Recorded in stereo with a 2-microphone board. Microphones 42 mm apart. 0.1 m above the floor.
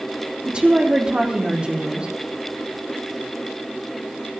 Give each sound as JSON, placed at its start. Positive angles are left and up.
{"t": 0.5, "sound": "a woman speaking", "side_deg": -25, "distance_m": 3.5}